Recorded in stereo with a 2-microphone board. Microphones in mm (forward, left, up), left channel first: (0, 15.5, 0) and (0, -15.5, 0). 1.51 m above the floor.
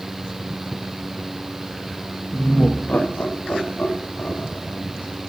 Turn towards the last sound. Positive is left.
turn(degrees=85)